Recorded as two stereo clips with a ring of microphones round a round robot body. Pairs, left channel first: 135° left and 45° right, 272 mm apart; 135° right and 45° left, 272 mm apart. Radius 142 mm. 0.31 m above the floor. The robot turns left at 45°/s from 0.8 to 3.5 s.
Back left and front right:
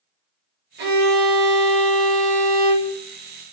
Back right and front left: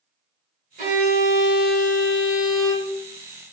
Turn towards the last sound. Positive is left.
turn(degrees=-130)